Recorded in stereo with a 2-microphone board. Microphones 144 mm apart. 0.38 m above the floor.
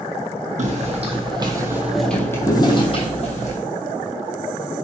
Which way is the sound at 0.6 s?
55° right (ahead or behind).